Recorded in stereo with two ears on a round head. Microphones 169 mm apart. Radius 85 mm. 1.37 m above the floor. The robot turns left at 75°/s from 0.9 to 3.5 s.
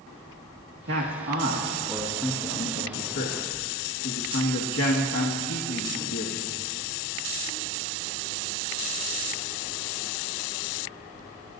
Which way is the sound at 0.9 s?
85° right.